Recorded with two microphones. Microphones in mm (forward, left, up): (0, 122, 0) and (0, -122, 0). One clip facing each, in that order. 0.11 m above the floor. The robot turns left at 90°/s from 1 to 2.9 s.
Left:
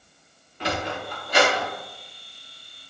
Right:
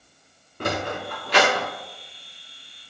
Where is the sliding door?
50° right (ahead or behind), 2.5 m; by 1.7 s 65° right (ahead or behind), 2.5 m.